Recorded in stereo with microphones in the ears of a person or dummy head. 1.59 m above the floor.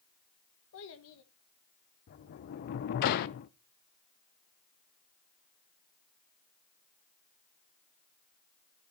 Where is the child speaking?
70° left (ahead or behind), 1.4 m.